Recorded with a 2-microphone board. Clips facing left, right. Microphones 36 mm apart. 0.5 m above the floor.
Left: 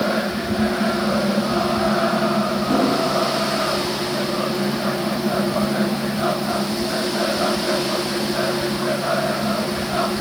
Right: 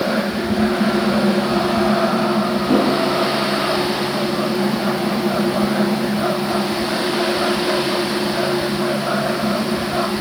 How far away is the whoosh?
About 7 m.